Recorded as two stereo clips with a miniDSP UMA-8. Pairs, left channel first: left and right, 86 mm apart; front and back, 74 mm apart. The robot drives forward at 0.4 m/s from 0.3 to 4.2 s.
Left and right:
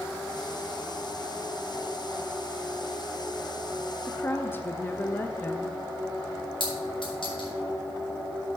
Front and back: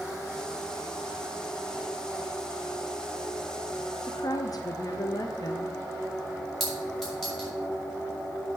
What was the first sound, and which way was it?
A woman speaking, 25° left.